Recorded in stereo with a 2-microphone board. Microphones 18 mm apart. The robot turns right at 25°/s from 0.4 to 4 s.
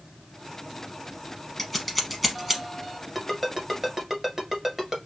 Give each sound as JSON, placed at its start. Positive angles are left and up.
{"t": 1.6, "sound": "scissors", "side_deg": 15, "distance_m": 0.8}
{"t": 3.1, "sound": "a ringtone", "side_deg": 0, "distance_m": 1.4}